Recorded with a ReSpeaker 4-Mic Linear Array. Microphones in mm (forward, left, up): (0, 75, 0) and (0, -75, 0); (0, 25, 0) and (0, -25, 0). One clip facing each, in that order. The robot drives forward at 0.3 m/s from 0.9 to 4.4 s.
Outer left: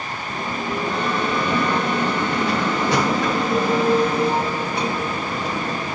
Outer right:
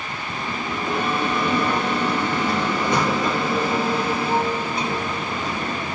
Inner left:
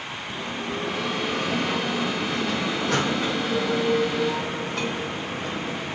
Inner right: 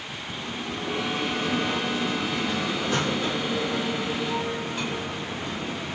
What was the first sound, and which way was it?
A bell, 70° left (ahead or behind).